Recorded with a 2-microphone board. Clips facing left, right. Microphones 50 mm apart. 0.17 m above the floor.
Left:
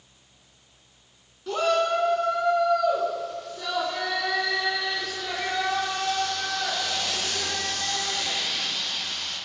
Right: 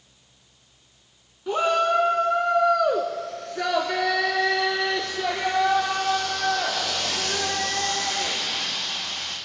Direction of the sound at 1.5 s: 15° right (ahead or behind).